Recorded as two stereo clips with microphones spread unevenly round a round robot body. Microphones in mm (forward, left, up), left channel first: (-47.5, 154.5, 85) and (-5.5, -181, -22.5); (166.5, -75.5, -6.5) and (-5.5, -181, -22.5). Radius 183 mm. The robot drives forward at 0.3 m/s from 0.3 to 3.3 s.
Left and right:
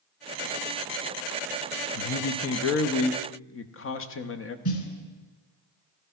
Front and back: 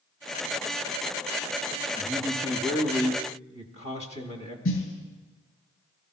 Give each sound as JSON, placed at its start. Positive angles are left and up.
{"t": 1.9, "sound": "a man speaking", "azimuth_deg": 125, "distance_m": 0.7}
{"t": 4.7, "sound": "a snare drum", "azimuth_deg": 70, "distance_m": 2.5}